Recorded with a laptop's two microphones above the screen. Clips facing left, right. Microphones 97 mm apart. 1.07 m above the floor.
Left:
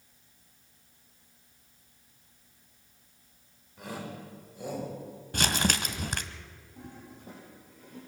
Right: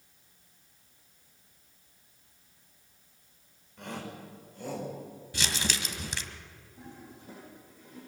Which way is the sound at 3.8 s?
5° left (ahead or behind).